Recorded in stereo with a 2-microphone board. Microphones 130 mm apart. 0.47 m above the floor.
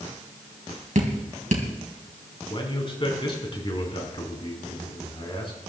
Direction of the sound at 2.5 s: 40° left (ahead or behind).